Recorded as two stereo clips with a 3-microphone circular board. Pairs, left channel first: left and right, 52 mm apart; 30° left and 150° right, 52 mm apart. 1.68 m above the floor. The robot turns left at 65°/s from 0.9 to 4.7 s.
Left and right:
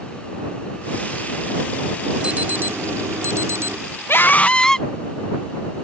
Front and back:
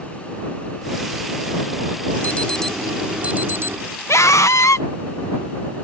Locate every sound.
2.2 s an alarm: 25° right; by 3.8 s 125° right
4.1 s a scream: 50° left; by 4.9 s 10° left